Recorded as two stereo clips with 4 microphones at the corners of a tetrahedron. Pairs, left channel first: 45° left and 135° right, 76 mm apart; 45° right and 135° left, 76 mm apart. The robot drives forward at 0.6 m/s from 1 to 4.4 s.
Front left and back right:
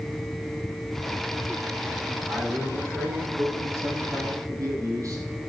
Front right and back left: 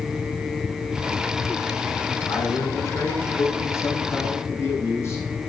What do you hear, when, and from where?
2.3 s a man speaking: 80° right, 5 m; by 5.5 s 95° right, 5 m